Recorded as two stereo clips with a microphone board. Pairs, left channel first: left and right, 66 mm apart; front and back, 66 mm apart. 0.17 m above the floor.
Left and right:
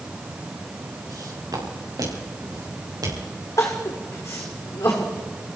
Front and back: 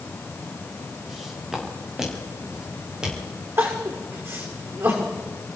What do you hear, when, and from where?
1.1 s footsteps: 95° right, 4.5 m; by 3.5 s 105° right, 6.5 m
3.6 s crying: 130° left, 3.5 m